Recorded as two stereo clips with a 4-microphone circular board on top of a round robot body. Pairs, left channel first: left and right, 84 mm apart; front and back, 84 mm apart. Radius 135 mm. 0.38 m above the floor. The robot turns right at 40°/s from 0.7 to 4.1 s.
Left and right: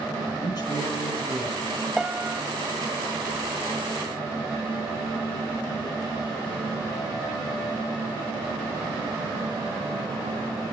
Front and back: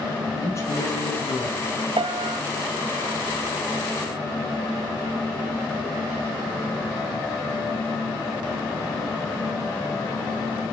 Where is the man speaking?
55° left, 5 m; by 1.7 s 95° left, 5 m.